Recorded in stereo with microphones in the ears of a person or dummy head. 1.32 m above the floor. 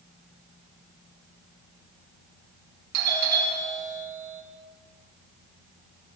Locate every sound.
2.9 s a doorbell: 55° right (ahead or behind), 3.5 m